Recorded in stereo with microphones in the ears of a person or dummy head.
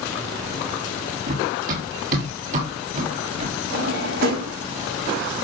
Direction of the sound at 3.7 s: 65° right (ahead or behind).